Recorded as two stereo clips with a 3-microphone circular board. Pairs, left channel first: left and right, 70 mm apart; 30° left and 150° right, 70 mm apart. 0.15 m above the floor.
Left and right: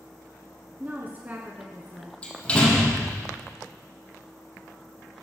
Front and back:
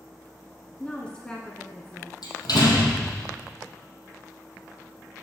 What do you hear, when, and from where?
0.8 s a woman speaking: 40° right, 1.3 m
2.2 s a door slam: 20° left, 3 m